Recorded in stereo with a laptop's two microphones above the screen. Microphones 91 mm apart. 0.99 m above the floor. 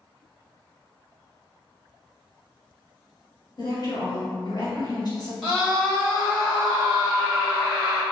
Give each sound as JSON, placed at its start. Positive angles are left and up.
{"t": 3.6, "sound": "a woman speaking", "side_deg": 45, "distance_m": 1.0}
{"t": 5.4, "sound": "a scream", "side_deg": 0, "distance_m": 1.1}